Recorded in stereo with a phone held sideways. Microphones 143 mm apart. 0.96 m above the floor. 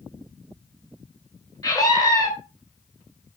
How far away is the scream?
About 4 m.